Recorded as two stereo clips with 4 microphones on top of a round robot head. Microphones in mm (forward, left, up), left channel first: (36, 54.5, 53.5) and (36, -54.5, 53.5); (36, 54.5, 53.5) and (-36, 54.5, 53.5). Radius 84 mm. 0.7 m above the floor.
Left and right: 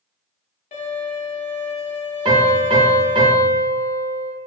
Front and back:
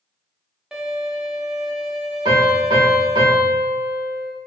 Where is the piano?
140° right, 0.8 m.